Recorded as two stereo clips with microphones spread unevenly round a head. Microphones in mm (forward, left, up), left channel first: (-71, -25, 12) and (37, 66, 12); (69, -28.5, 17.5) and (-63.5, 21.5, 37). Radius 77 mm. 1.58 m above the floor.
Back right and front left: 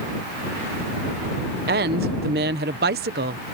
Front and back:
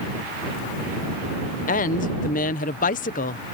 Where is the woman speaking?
10° left.